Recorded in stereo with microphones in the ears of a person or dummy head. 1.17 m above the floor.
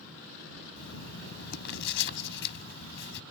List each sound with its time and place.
0.8 s writing: 65° left (ahead or behind)